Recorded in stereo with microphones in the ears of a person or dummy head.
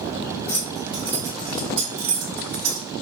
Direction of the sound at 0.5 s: 15° left (ahead or behind).